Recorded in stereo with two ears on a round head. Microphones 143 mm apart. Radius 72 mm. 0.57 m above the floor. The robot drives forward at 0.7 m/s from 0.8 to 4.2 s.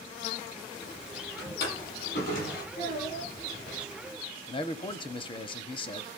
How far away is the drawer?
About 7.5 m.